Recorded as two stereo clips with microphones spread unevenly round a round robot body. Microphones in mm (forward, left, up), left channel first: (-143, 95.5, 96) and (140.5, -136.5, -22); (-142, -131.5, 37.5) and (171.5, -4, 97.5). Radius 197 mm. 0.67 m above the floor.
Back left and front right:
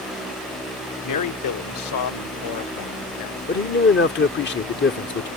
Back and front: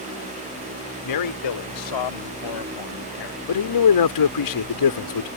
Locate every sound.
1.0 s a man speaking: 175° right; by 3.4 s straight behind
3.5 s a man speaking: 150° right